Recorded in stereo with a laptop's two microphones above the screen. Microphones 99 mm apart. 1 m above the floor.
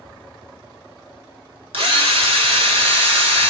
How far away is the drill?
About 1.3 m.